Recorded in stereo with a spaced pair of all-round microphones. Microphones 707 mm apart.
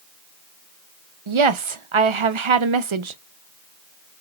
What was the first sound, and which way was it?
A woman speaking, 50° right (ahead or behind).